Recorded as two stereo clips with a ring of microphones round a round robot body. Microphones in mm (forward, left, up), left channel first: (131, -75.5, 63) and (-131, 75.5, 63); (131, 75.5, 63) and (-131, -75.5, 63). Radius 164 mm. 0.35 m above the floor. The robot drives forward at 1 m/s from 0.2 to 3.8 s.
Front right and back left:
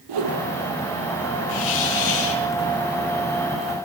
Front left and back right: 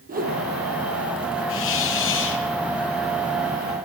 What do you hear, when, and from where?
0.1 s a whoosh: 145° left, 5 m
1.5 s a hiss: 20° right, 6.5 m; by 2.5 s 25° right, 5.5 m